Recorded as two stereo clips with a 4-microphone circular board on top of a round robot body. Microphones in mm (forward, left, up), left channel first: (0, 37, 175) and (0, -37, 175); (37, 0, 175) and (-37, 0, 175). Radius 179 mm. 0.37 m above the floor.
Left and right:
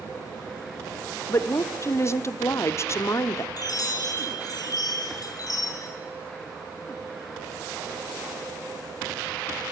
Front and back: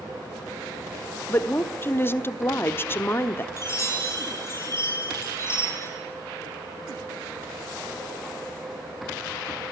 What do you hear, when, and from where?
1.3 s a woman speaking: 50° left, 1.5 m
3.6 s a chime: 55° left, 7 m